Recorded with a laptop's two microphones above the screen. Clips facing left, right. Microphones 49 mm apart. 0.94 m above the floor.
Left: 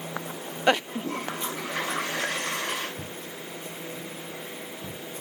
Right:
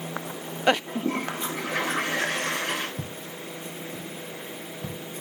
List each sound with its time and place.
0.9 s a toilet flushing: 65° right (ahead or behind), 4 m
3.0 s footsteps: 50° right (ahead or behind), 1.9 m; by 5.0 s 55° right (ahead or behind), 3.5 m